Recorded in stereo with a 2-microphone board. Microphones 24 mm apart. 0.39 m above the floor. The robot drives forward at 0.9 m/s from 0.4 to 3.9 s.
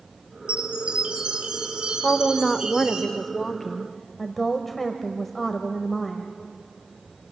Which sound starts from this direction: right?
A chime, at 0.5 s.